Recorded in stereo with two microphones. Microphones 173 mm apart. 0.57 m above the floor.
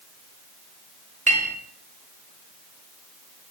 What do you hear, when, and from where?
1.3 s a clink: 45° right (ahead or behind), 1.0 m